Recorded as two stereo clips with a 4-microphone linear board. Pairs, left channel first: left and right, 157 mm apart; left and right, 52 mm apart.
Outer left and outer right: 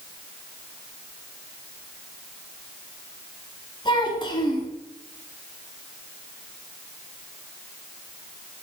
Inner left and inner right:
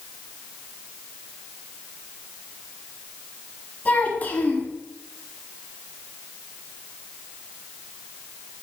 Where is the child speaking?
30° left (ahead or behind), 1.2 m.